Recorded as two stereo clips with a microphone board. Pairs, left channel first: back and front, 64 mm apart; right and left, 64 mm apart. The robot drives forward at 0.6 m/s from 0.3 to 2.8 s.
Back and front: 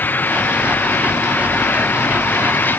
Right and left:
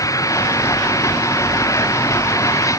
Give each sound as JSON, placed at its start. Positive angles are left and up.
{"t": 0.0, "sound": "an engine running", "azimuth_deg": -120}